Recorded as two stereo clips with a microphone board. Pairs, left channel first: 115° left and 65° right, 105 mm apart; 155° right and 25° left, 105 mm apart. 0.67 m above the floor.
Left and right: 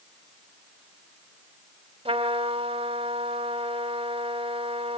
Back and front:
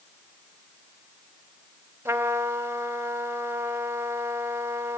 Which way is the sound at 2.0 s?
45° right.